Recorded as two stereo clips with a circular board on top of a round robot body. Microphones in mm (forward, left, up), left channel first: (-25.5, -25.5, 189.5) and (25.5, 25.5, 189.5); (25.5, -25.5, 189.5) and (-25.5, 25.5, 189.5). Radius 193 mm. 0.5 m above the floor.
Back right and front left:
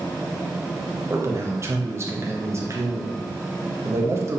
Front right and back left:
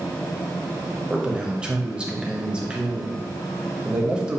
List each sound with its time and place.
1.1 s a man speaking: 65° left, 1.1 m